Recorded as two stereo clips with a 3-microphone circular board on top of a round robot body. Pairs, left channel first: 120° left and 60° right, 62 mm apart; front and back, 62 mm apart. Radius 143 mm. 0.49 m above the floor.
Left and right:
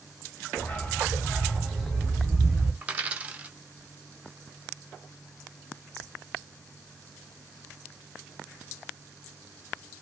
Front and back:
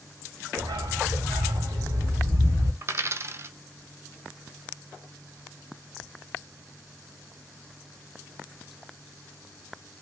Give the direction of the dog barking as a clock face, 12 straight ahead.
6 o'clock.